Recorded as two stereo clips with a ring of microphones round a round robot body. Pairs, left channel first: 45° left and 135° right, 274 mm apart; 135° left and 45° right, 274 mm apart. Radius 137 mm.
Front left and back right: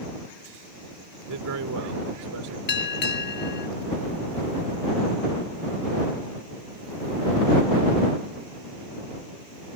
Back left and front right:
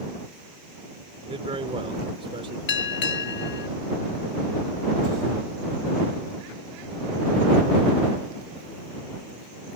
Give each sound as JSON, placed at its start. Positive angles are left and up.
{"t": 1.3, "sound": "a man speaking", "azimuth_deg": -115}
{"t": 2.7, "sound": "a bell", "azimuth_deg": 90}